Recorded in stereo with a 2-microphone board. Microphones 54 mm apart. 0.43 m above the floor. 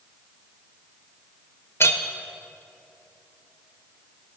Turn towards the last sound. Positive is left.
turn(degrees=50)  # may be behind; listen again after turning